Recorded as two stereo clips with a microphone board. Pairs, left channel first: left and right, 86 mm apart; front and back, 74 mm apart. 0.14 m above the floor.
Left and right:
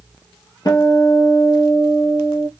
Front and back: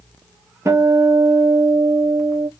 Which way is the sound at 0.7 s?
135° left.